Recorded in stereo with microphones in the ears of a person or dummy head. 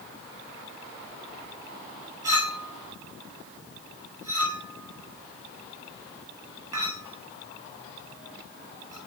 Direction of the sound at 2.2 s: 20° right (ahead or behind).